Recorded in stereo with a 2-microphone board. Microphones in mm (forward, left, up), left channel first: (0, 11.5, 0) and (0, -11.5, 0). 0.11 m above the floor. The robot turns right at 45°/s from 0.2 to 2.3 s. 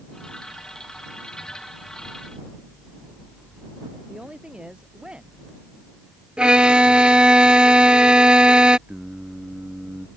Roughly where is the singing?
Right.